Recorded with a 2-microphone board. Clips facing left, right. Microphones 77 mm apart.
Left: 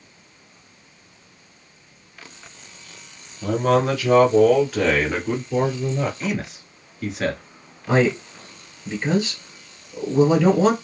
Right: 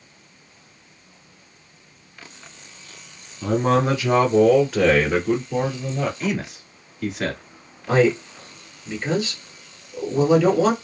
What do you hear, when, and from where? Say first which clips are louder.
3.4 s a man speaking: even; 25° right (ahead or behind), 1.4 m; by 6.1 s 10° left (ahead or behind), 1.8 m
6.2 s a man speaking: right 1 dB; centre (ahead or behind), 1.3 m
7.9 s a man speaking: right 1 dB; 15° left (ahead or behind), 1.8 m